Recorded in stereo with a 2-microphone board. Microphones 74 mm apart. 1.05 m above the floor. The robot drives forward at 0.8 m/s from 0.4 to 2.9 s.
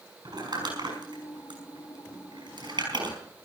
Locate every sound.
0.2 s crumpling: 70° right (ahead or behind), 6.5 m; by 3.1 s 90° right, 6 m